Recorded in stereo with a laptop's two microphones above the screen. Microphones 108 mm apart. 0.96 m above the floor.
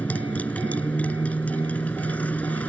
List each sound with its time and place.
0.0 s a motorcycle: 15° left (ahead or behind)